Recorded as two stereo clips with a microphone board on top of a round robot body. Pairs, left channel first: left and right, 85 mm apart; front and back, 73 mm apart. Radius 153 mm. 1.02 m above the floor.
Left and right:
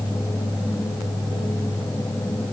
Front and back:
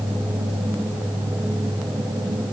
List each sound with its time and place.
Only background noise.